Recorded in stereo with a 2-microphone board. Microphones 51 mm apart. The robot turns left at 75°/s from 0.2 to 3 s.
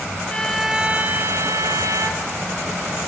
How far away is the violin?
About 1.4 m.